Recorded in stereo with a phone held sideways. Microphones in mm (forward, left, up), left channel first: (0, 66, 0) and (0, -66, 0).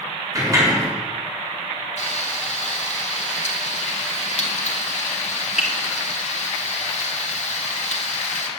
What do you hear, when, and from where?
0.3 s a sliding door: 25° right (ahead or behind), 4 m
2.0 s frying: 65° left (ahead or behind), 2.5 m